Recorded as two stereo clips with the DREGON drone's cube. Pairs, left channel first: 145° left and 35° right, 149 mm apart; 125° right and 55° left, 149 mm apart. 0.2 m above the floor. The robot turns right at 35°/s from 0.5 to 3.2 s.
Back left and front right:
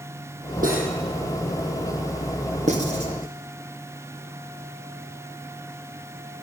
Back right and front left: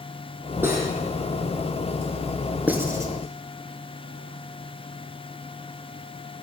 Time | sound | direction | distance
0.6 | cutlery clinking | 20° right | 3.5 m
2.7 | writing | 20° right | 2 m